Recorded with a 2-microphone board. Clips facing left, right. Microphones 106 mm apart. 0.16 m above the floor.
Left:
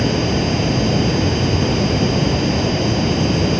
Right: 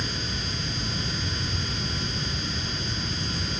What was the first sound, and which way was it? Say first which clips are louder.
Running water: left 16 dB; 80° left.